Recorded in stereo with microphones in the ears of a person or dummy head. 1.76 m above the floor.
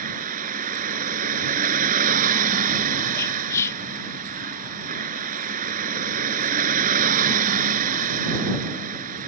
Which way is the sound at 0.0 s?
40° right (ahead or behind).